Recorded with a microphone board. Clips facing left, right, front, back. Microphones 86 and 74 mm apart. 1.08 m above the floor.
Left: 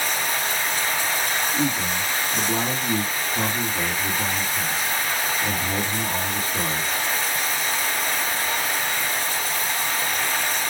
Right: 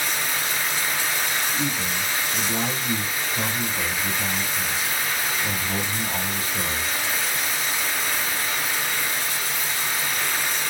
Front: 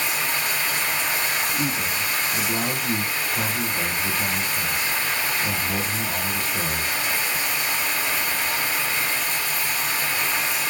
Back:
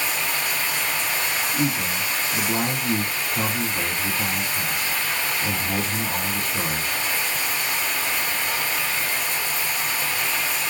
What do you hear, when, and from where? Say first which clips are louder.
0.0 s running water: left 2 dB, even; 130° left, 2.5 m
1.5 s a man speaking: left 3 dB, back 1 dB; 140° left, 2.5 m